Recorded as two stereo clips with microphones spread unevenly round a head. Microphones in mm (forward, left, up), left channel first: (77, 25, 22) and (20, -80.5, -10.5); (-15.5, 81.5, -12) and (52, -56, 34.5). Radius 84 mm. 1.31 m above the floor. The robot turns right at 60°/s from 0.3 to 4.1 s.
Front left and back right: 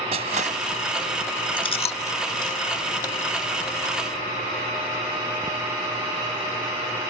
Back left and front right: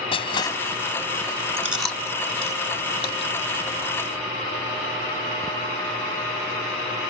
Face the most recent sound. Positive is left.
turn(degrees=165)